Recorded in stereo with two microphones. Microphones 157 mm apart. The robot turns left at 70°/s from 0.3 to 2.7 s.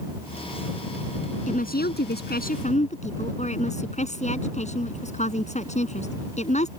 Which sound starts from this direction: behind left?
A woman speaking, at 1.5 s.